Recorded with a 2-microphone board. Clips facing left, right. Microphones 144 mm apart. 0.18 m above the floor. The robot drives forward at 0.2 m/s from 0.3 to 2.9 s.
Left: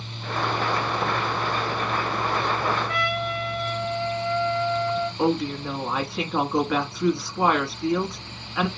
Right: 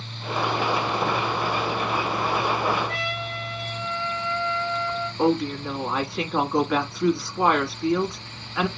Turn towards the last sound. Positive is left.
turn(degrees=0)  # may be behind; listen again after turning